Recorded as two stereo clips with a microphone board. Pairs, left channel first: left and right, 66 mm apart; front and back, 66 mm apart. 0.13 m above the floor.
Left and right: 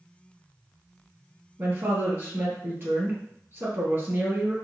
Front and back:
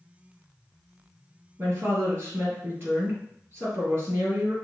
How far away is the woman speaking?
About 1.9 m.